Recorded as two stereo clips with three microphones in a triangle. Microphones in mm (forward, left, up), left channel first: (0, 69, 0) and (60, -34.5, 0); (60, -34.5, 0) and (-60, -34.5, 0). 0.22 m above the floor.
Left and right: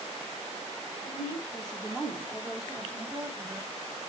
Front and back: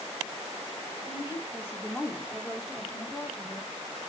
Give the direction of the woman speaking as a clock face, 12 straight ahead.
8 o'clock.